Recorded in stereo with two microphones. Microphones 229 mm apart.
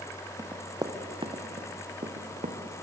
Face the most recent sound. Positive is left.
turn(degrees=-40)  # may be behind; listen again after turning